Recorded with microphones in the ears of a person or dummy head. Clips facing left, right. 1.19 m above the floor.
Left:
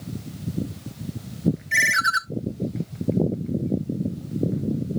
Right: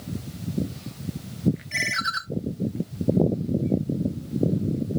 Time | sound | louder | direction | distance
1.7 | a ringtone | left 4 dB | 20° left (ahead or behind) | 0.6 m